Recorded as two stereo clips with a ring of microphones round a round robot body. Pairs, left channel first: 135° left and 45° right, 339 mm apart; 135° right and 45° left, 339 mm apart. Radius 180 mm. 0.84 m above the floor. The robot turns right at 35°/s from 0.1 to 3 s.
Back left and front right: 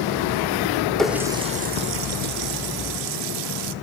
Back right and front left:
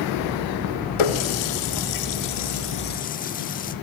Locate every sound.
1.0 s a running tap: 135° right, 1.1 m; by 3.7 s 65° right, 1.1 m